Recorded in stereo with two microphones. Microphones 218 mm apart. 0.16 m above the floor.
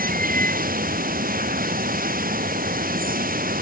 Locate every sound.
0.0 s running water: 40° right (ahead or behind)